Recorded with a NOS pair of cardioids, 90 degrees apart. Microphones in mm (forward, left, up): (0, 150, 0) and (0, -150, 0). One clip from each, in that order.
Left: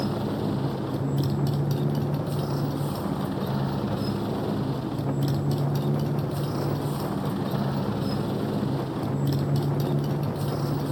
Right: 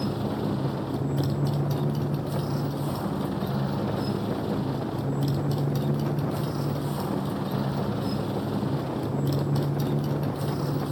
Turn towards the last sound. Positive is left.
turn(degrees=10)